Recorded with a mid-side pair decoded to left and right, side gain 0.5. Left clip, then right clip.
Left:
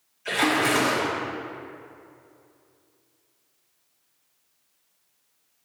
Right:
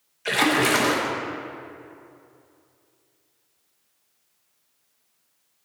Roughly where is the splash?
Ahead right.